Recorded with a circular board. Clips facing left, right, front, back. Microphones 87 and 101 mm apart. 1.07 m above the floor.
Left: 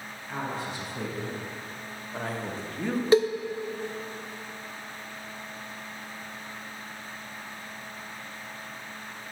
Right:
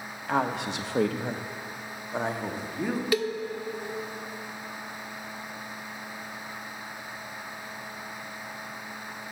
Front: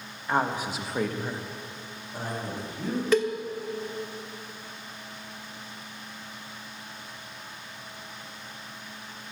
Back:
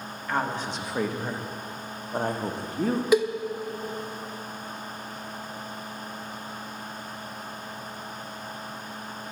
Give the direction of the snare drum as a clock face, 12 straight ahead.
No snare drum in this recording.